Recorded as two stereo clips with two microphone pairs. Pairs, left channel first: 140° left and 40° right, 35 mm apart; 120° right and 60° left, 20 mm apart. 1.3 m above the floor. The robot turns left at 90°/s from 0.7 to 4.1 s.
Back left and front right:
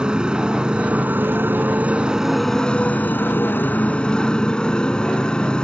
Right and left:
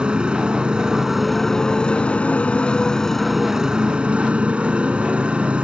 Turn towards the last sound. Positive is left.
turn(degrees=75)